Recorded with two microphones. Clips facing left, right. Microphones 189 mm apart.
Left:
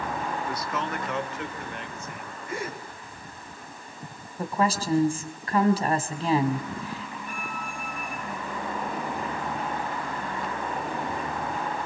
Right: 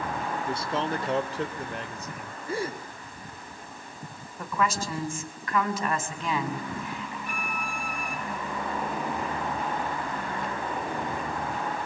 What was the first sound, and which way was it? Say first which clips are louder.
A man speaking: right 2 dB; 25° right (ahead or behind).